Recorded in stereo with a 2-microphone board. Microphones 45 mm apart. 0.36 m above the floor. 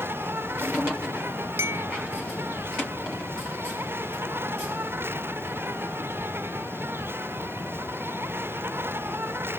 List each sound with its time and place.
0.0 s an insect: 55° right (ahead or behind)
1.6 s a clink: 80° right